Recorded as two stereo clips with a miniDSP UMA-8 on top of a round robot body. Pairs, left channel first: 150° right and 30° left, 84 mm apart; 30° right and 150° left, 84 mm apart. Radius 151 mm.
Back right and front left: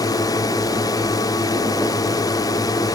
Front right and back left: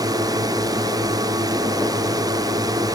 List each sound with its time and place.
0.0 s a drone: straight behind